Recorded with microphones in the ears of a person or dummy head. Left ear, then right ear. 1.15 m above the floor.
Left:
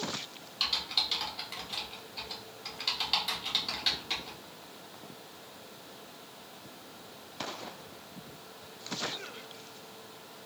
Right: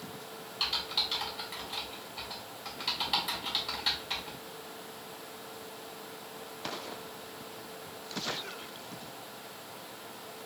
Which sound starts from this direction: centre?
Typing on a keyboard, at 0.6 s.